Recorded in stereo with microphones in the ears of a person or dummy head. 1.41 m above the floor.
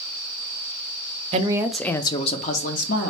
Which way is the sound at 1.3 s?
35° right (ahead or behind).